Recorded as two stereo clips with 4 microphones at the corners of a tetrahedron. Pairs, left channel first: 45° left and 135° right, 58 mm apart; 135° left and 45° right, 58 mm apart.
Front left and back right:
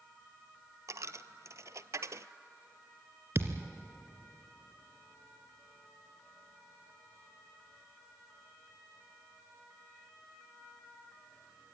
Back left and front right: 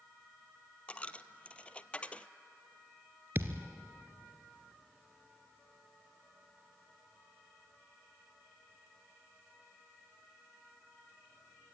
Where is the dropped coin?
160° right, 0.5 m.